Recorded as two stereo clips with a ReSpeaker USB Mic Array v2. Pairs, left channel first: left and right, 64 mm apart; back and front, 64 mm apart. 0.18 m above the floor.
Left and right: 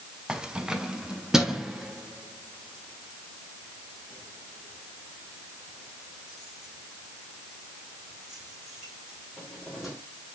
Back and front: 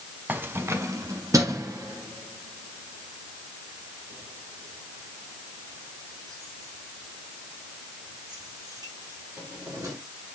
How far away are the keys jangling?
About 0.8 m.